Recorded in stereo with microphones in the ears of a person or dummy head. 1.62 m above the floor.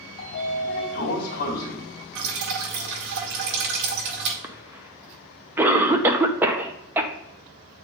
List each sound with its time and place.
0.2 s a sliding door: 55° left (ahead or behind), 2.5 m
2.1 s dripping: 60° right (ahead or behind), 1.3 m
4.4 s a cough: 10° right (ahead or behind), 0.9 m